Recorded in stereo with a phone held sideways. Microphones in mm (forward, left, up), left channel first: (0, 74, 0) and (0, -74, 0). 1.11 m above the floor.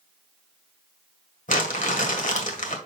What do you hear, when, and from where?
1.5 s crumpling: 65° left (ahead or behind), 1.5 m